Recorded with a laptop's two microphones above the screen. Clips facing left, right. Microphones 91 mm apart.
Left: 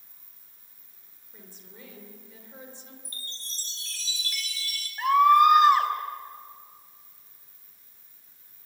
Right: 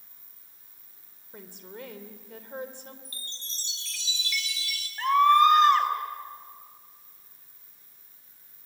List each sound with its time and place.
1.3 s a woman speaking: 80° right, 3 m; by 3.0 s 60° right (ahead or behind), 3 m
3.0 s a chime: 40° left (ahead or behind), 4.5 m
5.0 s a scream: 10° left (ahead or behind), 4 m